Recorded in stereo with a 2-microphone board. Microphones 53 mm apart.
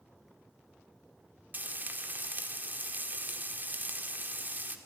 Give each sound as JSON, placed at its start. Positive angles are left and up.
{"t": 1.5, "sound": "frying", "side_deg": -35, "distance_m": 1.8}